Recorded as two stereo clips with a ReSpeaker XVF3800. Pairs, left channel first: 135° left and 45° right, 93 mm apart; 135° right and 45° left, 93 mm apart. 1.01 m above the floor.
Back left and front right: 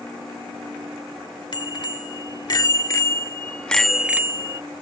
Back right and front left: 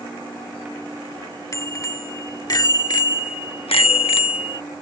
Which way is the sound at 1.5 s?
170° left.